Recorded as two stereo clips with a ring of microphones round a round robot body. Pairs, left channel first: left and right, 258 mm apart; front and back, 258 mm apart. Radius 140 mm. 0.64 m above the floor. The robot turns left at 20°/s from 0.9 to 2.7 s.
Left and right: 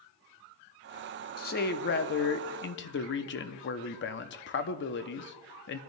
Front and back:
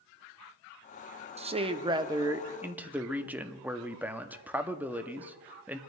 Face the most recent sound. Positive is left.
turn(degrees=100)